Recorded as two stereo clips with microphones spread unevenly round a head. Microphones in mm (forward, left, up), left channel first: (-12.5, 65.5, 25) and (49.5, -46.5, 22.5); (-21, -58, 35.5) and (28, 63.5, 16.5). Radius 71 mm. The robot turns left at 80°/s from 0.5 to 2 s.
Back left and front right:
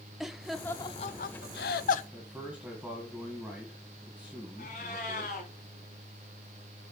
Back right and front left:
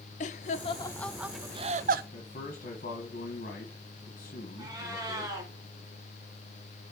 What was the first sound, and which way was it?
Laughter, 150° right.